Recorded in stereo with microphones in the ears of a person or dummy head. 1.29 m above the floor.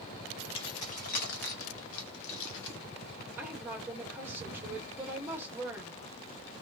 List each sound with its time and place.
0.6 s keys jangling: 30° left (ahead or behind), 1.2 m; by 2.8 s 65° left (ahead or behind), 1.4 m
3.4 s a woman speaking: 10° right (ahead or behind), 1.7 m